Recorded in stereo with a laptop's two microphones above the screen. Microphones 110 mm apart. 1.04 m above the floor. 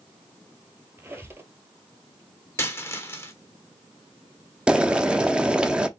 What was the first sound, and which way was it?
A squeak, 20° right (ahead or behind).